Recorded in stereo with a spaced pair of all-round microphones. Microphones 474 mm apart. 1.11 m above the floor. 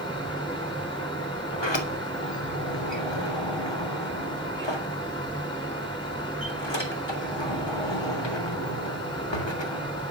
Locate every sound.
0.0 s a fan: 10° left (ahead or behind), 4.5 m
1.5 s a sliding door: 65° left (ahead or behind), 3 m